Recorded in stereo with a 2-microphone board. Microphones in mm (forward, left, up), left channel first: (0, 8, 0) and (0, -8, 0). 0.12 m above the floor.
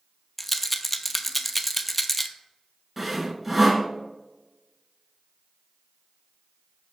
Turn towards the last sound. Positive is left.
turn(degrees=-10)  # may be behind; listen again after turning